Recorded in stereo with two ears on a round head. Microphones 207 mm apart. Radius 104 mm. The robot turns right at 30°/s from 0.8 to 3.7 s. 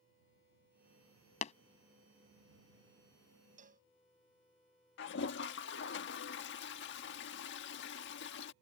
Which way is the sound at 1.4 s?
30° left (ahead or behind).